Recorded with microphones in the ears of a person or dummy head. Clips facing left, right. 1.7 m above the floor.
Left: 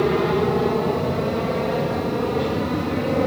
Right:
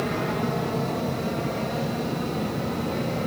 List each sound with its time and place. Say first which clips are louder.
0.0 s an aircraft: left 8 dB; 60° left (ahead or behind); by 3.3 s 65° left (ahead or behind)